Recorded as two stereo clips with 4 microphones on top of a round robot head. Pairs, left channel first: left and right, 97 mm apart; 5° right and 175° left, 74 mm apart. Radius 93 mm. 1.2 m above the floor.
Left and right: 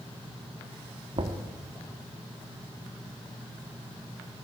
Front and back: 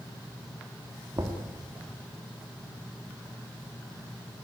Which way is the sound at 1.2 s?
125° right.